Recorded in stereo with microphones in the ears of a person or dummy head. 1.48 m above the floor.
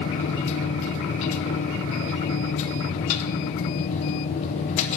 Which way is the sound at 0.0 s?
40° left (ahead or behind).